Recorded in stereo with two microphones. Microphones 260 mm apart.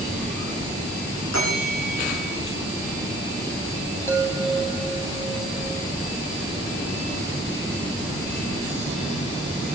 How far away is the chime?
About 2.5 m.